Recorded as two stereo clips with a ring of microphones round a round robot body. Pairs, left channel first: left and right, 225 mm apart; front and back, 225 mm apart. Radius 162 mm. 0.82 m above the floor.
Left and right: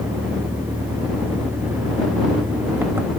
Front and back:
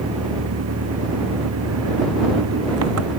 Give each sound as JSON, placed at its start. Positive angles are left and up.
{"t": 0.0, "sound": "an engine running", "azimuth_deg": -175}